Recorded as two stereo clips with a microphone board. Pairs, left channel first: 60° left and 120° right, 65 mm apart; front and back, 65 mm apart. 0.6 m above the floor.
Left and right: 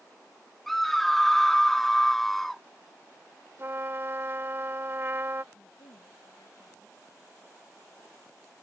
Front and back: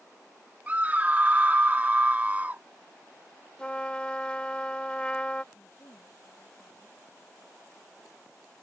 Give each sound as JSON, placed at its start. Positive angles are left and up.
{"t": 0.7, "sound": "a scream", "azimuth_deg": 145}
{"t": 3.6, "sound": "a trumpet", "azimuth_deg": -70}
{"t": 5.5, "sound": "a woman speaking", "azimuth_deg": 55}